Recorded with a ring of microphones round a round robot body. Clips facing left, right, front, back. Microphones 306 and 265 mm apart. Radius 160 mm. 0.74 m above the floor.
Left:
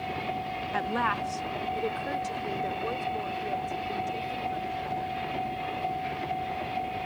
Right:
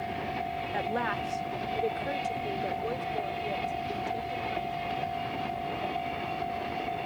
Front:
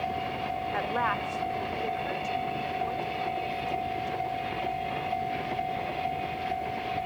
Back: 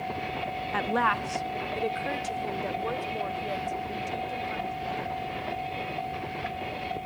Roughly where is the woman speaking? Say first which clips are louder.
Left 1 dB, back 5 dB; behind left.